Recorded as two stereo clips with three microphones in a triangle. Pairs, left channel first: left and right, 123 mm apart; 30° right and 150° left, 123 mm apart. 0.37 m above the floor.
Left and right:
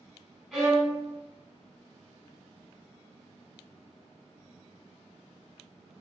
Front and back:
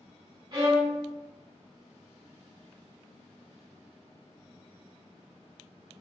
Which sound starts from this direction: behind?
A violin, at 0.5 s.